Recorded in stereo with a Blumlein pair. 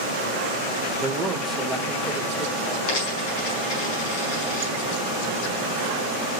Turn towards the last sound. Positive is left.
turn(degrees=45)